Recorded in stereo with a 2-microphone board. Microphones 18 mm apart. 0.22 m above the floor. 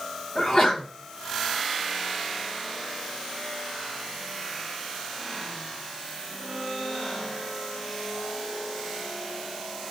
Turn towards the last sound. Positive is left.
turn(degrees=25)  # may be behind; listen again after turning